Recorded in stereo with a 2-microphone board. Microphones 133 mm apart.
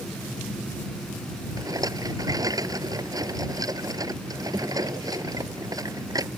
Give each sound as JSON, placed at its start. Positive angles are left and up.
{"t": 1.6, "sound": "a rattle", "side_deg": -25}